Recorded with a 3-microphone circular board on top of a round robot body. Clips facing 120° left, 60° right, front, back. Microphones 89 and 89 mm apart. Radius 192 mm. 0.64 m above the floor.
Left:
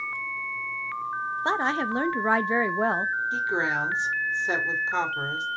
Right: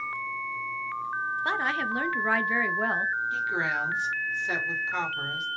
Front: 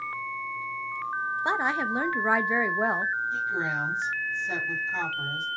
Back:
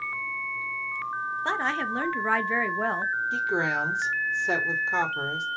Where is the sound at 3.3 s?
Straight behind, 3 m.